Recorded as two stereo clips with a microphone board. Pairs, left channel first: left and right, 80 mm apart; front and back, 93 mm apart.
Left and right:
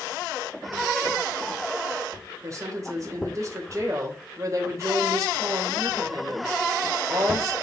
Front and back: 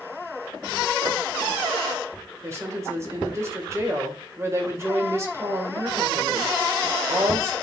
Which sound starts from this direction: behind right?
A woman speaking, at 2.4 s.